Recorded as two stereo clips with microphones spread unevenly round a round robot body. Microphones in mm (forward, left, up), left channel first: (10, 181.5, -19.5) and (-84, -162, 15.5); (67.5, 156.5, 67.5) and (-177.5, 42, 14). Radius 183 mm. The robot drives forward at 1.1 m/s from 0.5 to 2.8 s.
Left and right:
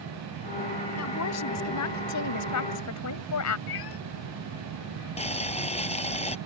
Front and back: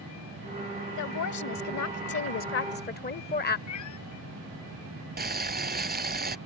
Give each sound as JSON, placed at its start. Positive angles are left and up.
{"t": 1.0, "sound": "a woman speaking", "azimuth_deg": 30}
{"t": 3.7, "sound": "a cat meowing", "azimuth_deg": 45}
{"t": 5.2, "sound": "boiling", "azimuth_deg": 150}